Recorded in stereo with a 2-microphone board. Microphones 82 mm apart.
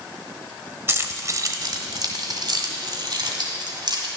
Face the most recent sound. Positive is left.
turn(degrees=-55)  # may be behind; listen again after turning